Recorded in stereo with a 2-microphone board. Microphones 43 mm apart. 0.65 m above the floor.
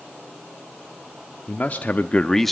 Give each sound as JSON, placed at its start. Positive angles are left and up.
{"t": 1.5, "sound": "a man speaking", "side_deg": 40, "distance_m": 1.2}